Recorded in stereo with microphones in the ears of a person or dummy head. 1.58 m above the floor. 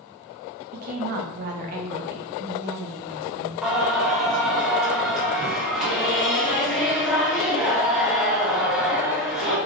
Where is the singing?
5° right (ahead or behind), 1.0 m.